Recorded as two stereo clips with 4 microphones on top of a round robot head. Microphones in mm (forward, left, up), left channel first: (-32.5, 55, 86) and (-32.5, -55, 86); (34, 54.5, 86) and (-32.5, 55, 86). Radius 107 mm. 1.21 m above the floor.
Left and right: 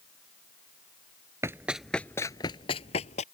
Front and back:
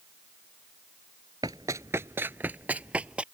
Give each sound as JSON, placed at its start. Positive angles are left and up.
{"t": 1.4, "sound": "running footsteps", "azimuth_deg": -140}